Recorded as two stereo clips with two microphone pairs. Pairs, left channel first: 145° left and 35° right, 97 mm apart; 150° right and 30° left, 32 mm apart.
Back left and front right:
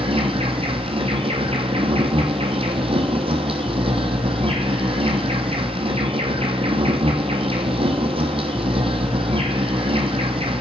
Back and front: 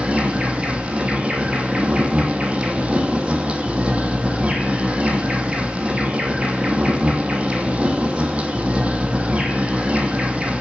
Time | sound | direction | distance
0.0 | an insect | 25° right | 1.2 m